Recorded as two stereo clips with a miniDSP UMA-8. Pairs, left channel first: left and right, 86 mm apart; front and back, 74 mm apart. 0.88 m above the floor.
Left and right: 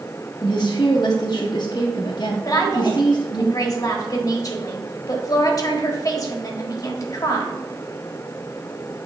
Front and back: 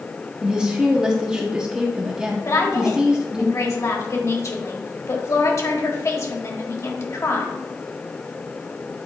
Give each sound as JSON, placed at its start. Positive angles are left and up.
{"t": 0.4, "sound": "a woman speaking", "azimuth_deg": 100, "distance_m": 0.7}
{"t": 2.5, "sound": "a woman speaking", "azimuth_deg": 45, "distance_m": 1.4}